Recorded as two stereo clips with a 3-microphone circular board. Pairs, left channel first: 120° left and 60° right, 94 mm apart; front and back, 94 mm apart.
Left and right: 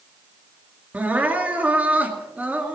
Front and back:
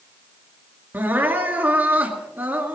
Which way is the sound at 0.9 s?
125° right.